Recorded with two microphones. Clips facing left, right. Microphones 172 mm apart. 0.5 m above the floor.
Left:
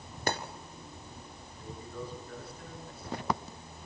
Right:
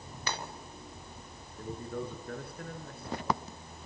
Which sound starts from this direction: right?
A man speaking, at 1.6 s.